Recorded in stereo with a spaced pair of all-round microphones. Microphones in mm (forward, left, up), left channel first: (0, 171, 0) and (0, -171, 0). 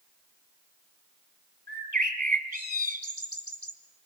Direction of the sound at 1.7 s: 25° right (ahead or behind).